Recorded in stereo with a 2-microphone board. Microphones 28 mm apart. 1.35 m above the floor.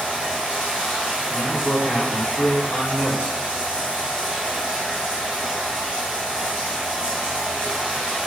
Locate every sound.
0.0 s running water: 40° right (ahead or behind), 1.4 m
1.3 s a man speaking: 70° left (ahead or behind), 0.7 m